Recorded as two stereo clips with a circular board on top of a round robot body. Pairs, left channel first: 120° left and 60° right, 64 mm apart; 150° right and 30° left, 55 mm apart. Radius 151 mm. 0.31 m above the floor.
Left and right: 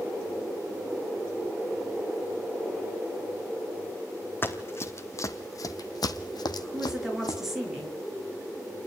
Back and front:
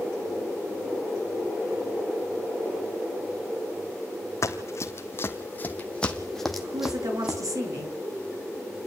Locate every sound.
4.4 s running footsteps: 175° left, 1.7 m; by 7.4 s 105° left, 1.5 m
6.6 s a woman speaking: 25° left, 7 m